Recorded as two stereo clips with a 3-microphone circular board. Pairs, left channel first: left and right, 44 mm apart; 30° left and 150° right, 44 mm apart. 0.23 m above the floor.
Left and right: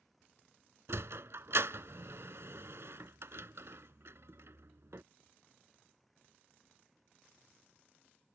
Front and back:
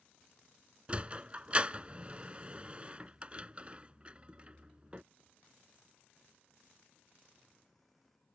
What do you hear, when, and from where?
0.9 s a sliding door: 90° right